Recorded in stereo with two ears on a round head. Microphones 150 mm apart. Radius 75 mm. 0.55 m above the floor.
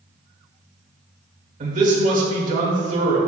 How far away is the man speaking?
About 1.6 m.